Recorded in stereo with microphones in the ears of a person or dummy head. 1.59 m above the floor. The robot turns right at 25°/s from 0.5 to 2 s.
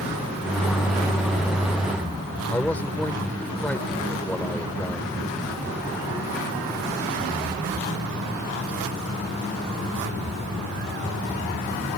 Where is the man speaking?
5° left (ahead or behind).